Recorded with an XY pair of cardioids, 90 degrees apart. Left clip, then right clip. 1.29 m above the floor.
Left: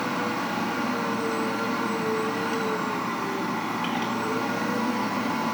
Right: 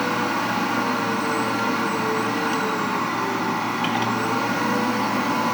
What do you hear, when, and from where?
0.0 s a machine running: 55° right, 2 m